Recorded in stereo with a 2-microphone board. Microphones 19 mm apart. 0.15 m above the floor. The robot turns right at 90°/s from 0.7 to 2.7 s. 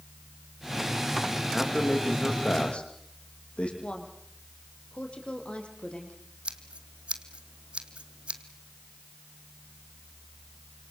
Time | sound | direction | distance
1.5 | a man speaking | 5° left (ahead or behind) | 7.5 m
3.8 | a woman speaking | 65° left (ahead or behind) | 5.5 m
6.5 | scissors | 80° right | 2 m